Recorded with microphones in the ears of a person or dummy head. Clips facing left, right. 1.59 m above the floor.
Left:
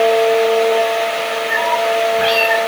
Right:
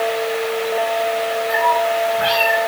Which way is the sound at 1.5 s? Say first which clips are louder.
Left 2 dB; 30° left (ahead or behind).